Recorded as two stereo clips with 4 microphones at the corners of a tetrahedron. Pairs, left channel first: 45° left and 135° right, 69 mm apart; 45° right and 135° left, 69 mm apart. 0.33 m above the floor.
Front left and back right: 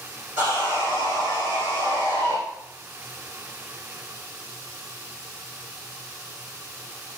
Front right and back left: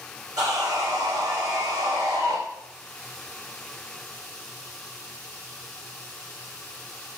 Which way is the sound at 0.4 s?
165° left.